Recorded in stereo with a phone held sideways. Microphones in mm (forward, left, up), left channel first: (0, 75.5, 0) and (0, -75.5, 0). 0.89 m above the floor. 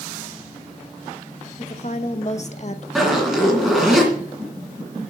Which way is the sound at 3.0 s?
Centre (ahead or behind).